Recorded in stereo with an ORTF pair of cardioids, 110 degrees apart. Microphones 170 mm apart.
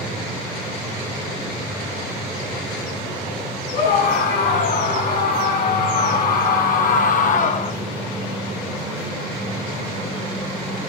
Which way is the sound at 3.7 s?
65° left.